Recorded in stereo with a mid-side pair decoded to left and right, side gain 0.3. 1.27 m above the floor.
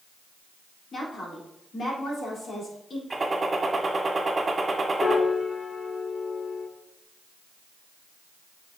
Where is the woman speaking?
60° left, 3.5 m.